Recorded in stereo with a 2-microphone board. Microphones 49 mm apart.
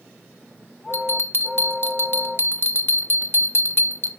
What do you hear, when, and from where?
0.9 s a bell: 50° left (ahead or behind), 1.1 m